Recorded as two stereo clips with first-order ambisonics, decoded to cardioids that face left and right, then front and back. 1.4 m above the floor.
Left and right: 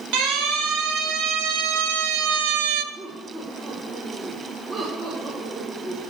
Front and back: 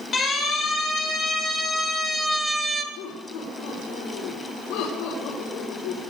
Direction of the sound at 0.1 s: 70° right.